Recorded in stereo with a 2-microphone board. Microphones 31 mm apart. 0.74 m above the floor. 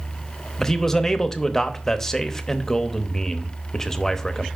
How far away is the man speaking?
About 0.7 m.